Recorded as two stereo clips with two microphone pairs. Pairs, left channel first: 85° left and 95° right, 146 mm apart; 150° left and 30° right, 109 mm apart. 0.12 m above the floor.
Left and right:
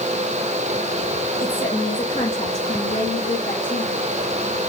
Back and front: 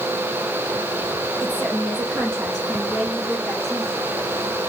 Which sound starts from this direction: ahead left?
A woman speaking, at 1.4 s.